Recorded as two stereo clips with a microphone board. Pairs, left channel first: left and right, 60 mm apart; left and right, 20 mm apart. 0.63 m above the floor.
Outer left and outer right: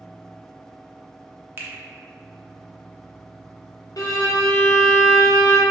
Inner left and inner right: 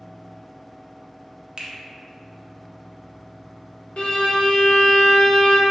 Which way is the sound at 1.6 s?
40° right (ahead or behind).